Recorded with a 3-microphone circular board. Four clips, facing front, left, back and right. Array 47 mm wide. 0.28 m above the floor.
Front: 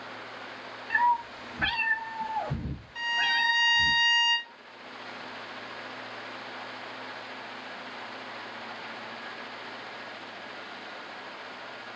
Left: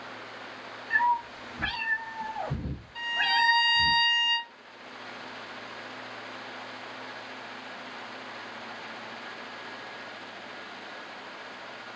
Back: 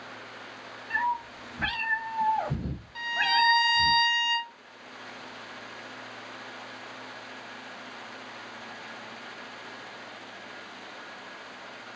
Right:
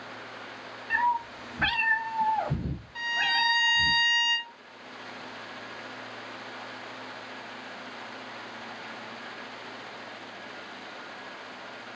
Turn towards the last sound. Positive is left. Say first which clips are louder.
# left 1 dB, back 1 dB
turn(degrees=-170)